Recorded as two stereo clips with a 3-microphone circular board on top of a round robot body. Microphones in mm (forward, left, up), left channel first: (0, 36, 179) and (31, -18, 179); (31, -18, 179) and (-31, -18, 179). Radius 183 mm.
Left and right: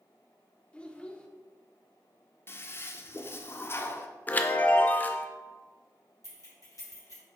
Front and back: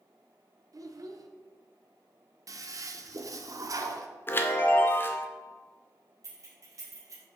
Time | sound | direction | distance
0.7 | a child speaking | 170° right | 1.0 m
2.5 | a toilet flushing | 165° left | 0.6 m
4.3 | a chime | 55° left | 0.5 m
6.2 | keys jangling | 150° left | 1.8 m